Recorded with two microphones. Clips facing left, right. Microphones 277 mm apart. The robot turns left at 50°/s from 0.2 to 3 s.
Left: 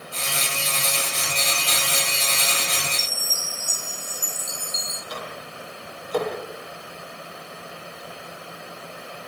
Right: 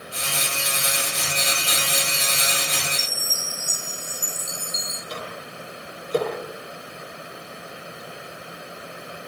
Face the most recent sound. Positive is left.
turn(degrees=-30)  # may be behind; listen again after turning